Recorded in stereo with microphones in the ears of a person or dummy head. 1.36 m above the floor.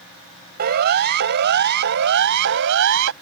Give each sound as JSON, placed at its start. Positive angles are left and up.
{"t": 0.6, "sound": "a siren", "side_deg": -55}